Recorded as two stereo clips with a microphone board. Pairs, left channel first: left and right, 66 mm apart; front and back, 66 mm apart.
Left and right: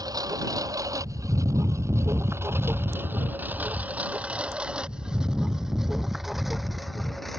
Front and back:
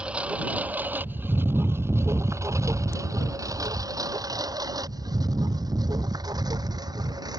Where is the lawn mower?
110° right; by 7.4 s straight behind.